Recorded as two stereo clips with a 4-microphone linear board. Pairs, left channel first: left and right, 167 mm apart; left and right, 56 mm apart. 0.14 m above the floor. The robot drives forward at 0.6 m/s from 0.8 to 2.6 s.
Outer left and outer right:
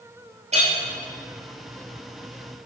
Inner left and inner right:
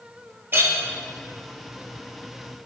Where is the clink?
40° right (ahead or behind), 1.6 m.